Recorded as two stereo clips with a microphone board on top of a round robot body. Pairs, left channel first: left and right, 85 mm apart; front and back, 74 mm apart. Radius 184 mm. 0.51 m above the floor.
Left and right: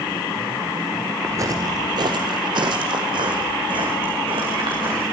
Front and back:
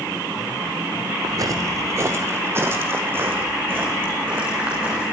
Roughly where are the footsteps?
Behind right.